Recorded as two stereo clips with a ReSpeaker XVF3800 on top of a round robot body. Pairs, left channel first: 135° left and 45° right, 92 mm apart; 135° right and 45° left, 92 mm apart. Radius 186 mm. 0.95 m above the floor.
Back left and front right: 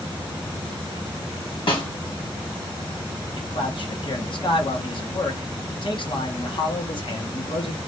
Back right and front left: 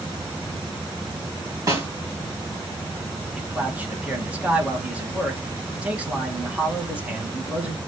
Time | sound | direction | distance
1.7 | a snare drum | 100° left | 1.8 m
3.4 | a man speaking | 120° left | 1.6 m